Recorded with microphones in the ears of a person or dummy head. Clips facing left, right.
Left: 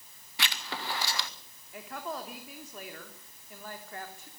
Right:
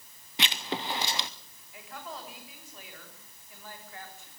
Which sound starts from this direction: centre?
Writing, at 0.4 s.